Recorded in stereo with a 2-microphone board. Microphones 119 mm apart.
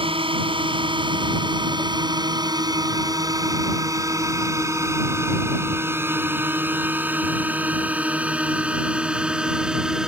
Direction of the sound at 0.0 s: 45° right (ahead or behind).